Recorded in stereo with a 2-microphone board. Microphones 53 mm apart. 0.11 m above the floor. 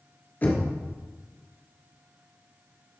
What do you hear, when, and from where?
0.4 s knocking: 35° left (ahead or behind), 1.9 m